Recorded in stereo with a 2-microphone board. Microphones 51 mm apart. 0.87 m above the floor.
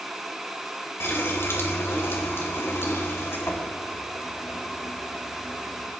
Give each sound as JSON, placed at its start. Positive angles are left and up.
{"t": 1.0, "sound": "a running tap", "side_deg": 55, "distance_m": 3.0}